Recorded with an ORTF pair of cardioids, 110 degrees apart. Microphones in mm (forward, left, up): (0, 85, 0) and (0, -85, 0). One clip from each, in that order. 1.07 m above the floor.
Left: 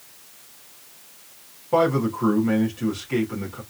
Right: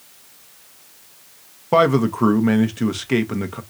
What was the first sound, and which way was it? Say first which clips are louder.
A man speaking: right 4 dB; 65° right.